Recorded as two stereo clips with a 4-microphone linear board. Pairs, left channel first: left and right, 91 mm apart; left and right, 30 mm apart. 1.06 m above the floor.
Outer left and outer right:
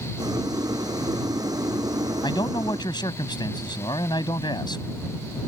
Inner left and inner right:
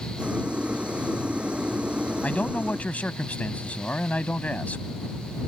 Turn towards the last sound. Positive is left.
turn(degrees=55)  # may be behind; listen again after turning